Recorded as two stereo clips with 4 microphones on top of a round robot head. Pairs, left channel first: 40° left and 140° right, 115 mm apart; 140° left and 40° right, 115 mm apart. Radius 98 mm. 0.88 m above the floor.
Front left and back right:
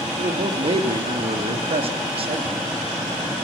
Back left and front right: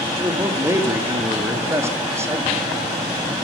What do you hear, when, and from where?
0.2 s a man speaking: 105° right, 2.5 m